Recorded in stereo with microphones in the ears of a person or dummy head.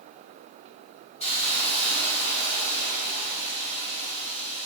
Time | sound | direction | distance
1.2 | a hiss | 40° left (ahead or behind) | 1.7 m